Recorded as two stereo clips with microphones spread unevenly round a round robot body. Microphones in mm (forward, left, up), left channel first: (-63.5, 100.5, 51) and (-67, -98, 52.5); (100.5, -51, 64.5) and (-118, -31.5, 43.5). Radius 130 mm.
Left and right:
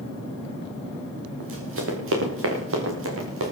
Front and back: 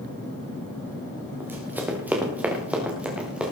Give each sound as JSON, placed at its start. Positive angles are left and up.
{"t": 1.4, "sound": "running footsteps", "azimuth_deg": -105, "distance_m": 4.0}